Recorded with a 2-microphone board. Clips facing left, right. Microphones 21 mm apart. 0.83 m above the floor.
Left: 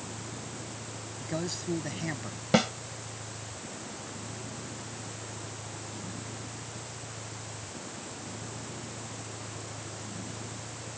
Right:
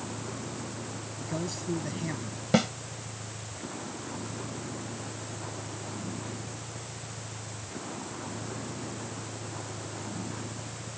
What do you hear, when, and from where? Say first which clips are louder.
0.0 s a vehicle: right 3 dB; 35° right (ahead or behind)
1.2 s a man speaking: left 1 dB; 20° left (ahead or behind)
2.5 s a snare drum: even; 5° left (ahead or behind)